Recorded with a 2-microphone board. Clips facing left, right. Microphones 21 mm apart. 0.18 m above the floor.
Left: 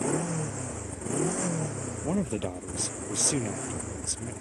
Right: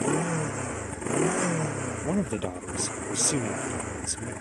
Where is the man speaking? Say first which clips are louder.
Even; 10° right (ahead or behind).